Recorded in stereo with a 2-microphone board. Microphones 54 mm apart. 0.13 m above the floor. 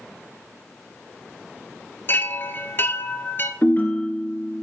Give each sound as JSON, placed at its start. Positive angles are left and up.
{"t": 2.1, "sound": "a chime", "side_deg": 45, "distance_m": 0.5}
{"t": 3.6, "sound": "a ringtone", "side_deg": 40, "distance_m": 0.9}